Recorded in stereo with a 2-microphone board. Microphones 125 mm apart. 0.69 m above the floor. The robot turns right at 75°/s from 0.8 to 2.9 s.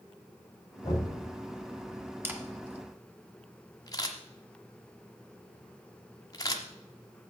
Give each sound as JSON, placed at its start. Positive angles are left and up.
{"t": 0.8, "sound": "knocking", "side_deg": 35, "distance_m": 2.5}
{"t": 2.2, "sound": "a camera shutter", "side_deg": -20, "distance_m": 1.2}